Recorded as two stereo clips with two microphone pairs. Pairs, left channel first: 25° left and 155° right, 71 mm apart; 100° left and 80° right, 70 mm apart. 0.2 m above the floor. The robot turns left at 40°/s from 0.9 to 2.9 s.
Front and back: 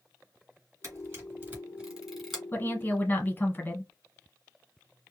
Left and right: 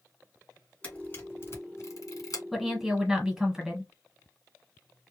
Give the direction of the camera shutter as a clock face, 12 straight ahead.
6 o'clock.